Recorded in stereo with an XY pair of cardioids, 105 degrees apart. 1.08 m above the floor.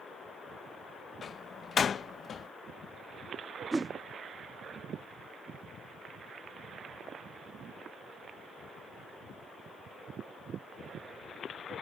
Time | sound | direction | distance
1.2 | a door slam | 45° left | ?
3.7 | a whoosh | 15° right | ?